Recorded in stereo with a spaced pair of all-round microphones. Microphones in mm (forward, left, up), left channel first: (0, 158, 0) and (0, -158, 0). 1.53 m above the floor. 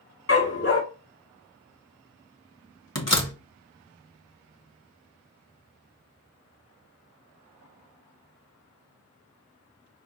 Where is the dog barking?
45° left (ahead or behind), 1.7 m.